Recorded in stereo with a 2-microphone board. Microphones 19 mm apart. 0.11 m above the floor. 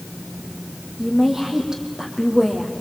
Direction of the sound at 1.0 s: 35° right (ahead or behind).